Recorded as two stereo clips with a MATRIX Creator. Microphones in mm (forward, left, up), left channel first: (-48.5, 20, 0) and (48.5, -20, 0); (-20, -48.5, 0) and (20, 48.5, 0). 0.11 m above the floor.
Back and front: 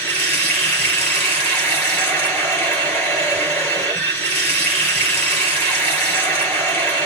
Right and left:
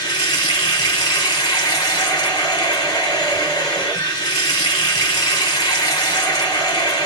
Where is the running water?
140° right, 1.8 m.